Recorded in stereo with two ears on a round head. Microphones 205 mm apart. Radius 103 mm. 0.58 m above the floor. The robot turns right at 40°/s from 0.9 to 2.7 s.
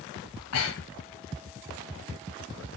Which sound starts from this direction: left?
Breathing, at 0.3 s.